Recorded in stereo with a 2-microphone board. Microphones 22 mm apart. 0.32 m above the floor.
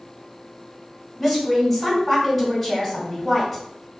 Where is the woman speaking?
10° left (ahead or behind), 1.7 m.